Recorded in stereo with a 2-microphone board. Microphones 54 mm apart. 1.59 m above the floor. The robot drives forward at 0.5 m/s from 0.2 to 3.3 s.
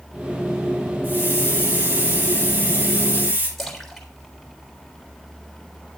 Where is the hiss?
35° right (ahead or behind), 9.5 m; by 3.5 s 30° right (ahead or behind), 10.5 m.